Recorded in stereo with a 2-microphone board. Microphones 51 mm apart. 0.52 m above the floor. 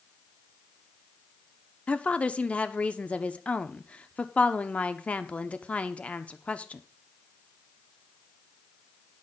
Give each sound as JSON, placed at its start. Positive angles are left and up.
{"t": 1.9, "sound": "a woman speaking", "side_deg": 25, "distance_m": 0.8}